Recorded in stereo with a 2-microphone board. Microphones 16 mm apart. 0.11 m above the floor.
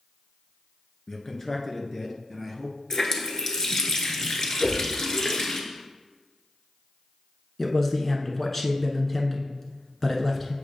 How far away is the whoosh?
About 2.5 m.